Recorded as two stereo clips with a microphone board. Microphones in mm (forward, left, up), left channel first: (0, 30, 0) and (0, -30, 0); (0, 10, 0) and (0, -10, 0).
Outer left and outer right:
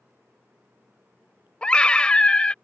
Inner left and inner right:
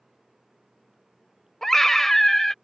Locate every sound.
1.6 s a scream: 20° left (ahead or behind)